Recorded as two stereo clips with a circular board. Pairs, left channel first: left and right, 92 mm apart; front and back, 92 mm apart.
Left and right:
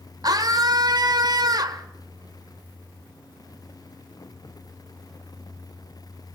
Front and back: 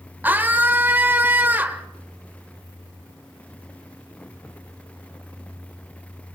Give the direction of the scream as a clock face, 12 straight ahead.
4 o'clock.